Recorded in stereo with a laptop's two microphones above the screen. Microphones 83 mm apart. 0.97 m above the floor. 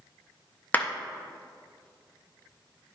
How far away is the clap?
About 0.5 m.